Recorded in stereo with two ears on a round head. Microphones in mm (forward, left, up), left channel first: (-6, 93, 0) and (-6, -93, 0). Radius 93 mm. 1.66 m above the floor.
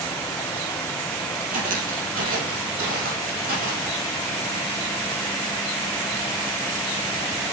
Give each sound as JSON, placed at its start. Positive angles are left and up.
{"t": 1.5, "sound": "footsteps", "side_deg": -40, "distance_m": 2.0}